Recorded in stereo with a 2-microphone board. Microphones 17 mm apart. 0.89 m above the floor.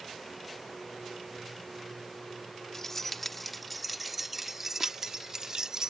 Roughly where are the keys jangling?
Left.